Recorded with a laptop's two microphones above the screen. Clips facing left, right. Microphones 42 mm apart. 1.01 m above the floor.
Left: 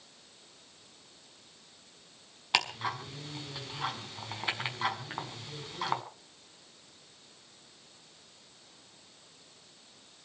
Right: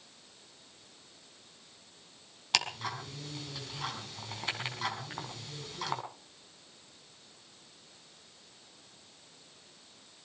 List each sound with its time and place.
2.5 s ticking: 15° left (ahead or behind), 5 m